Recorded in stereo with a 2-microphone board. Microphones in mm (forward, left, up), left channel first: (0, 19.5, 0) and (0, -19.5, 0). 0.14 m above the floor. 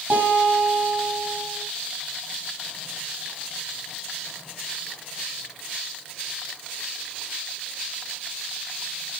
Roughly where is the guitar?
Right.